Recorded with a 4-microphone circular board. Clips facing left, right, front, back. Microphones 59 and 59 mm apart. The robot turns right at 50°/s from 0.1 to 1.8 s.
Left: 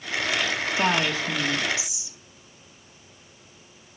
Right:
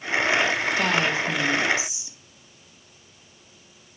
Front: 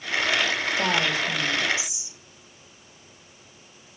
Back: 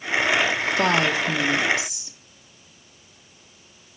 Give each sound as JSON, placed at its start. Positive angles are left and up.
{"t": 0.8, "sound": "a woman speaking", "azimuth_deg": 165, "distance_m": 1.9}